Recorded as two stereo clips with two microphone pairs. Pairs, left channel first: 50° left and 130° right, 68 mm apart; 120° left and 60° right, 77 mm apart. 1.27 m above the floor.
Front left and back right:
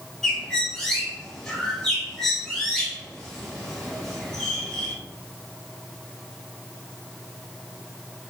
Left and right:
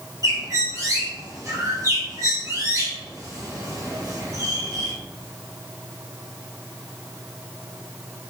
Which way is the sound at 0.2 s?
30° right.